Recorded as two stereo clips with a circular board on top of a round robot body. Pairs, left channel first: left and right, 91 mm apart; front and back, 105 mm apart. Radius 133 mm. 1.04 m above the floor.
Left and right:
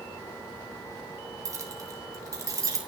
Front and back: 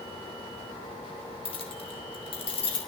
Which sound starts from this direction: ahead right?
Keys jangling, at 1.4 s.